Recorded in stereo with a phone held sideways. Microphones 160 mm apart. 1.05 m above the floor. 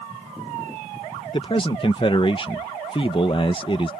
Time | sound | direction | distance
1.3 | a man speaking | 35° left (ahead or behind) | ?